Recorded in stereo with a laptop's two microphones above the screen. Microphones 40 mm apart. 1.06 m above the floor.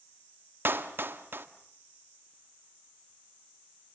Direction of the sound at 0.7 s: 65° right (ahead or behind).